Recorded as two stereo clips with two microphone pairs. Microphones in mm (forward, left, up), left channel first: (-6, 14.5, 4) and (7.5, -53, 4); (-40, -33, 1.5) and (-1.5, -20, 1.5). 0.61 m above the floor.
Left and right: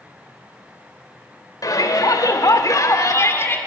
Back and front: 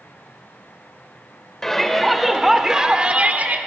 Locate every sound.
1.6 s a shout: 120° left, 3 m; by 3.6 s 55° left, 2 m